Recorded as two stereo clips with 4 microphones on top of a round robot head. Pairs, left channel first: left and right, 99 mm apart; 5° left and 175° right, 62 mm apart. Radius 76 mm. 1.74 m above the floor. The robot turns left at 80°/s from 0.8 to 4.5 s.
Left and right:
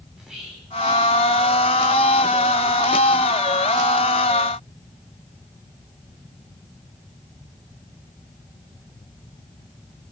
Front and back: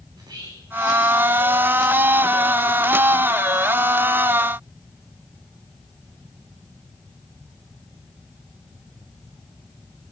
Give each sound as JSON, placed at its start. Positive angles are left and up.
{"t": 0.1, "sound": "whispering", "azimuth_deg": -175, "distance_m": 6.5}